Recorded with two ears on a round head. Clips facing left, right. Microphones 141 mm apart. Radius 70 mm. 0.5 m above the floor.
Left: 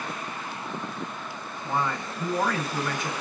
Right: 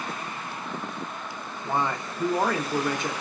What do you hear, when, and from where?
1.6 s a man speaking: 20° right (ahead or behind), 0.7 m